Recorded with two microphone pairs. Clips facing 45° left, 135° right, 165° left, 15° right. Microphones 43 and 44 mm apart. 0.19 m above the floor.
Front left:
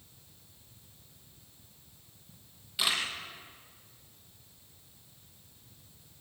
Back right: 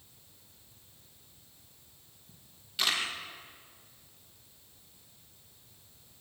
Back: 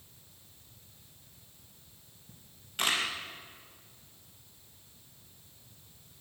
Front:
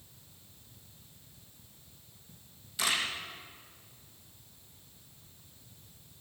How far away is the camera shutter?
About 5 m.